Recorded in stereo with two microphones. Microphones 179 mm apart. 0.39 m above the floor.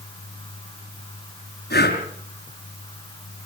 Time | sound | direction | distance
1.7 | breathing | 60° left (ahead or behind) | 6 m